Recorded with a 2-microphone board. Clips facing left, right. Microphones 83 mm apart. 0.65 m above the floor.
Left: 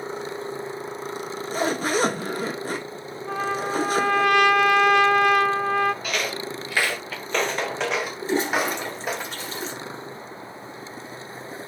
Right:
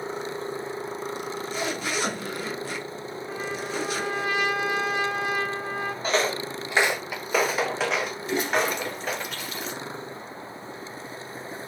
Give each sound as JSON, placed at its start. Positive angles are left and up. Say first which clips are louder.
{"t": 1.2, "sound": "a zipper", "louder": "left 3 dB", "side_deg": 40, "distance_m": 1.1}
{"t": 3.3, "sound": "a trumpet", "louder": "left 7 dB", "side_deg": 65, "distance_m": 0.7}
{"t": 6.0, "sound": "footsteps", "louder": "right 3 dB", "side_deg": -30, "distance_m": 0.8}
{"t": 8.2, "sound": "a toilet flushing", "louder": "left 3 dB", "side_deg": 30, "distance_m": 1.7}